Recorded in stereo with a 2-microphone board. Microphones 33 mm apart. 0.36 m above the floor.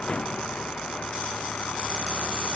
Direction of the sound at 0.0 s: 35° left (ahead or behind).